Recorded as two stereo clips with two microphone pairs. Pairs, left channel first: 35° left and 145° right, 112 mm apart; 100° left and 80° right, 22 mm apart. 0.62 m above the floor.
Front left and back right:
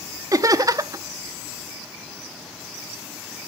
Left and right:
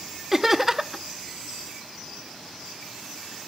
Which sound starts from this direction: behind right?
Laughter, at 0.3 s.